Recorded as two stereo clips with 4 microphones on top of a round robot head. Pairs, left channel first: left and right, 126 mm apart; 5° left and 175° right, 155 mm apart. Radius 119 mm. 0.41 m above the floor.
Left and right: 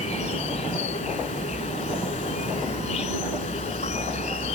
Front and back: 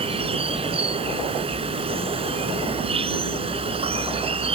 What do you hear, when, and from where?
0.0 s an insect: 135° left